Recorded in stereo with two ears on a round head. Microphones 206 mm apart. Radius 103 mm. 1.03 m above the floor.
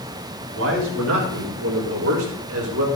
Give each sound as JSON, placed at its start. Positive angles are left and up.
{"t": 0.5, "sound": "a man speaking", "side_deg": -65, "distance_m": 5.5}